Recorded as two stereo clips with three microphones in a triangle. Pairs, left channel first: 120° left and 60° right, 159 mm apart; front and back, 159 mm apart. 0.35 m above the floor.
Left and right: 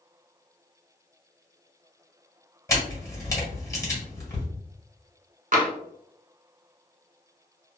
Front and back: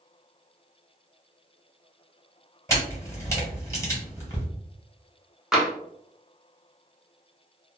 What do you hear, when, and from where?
2.7 s a camera shutter: 65° left, 1.3 m
5.5 s tapping: 95° right, 0.7 m